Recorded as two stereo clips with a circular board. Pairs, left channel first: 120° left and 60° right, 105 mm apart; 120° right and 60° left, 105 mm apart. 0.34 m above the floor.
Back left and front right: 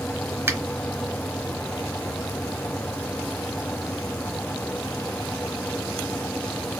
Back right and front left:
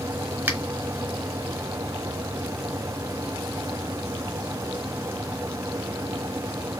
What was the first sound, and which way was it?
A finger snap, 5° right.